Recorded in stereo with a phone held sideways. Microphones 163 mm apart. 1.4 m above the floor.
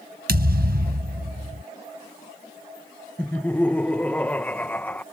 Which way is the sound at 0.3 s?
75° right (ahead or behind).